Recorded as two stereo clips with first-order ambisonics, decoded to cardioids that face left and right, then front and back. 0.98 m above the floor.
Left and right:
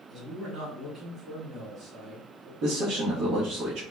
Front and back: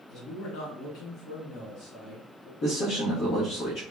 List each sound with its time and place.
0.1 s a man speaking: 25° right, 2 m
2.6 s a man speaking: 50° right, 1.0 m